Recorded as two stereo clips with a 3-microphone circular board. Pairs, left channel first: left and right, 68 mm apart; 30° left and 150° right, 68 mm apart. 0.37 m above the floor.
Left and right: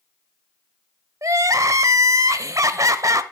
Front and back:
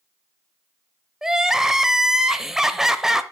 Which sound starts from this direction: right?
Crying, at 1.2 s.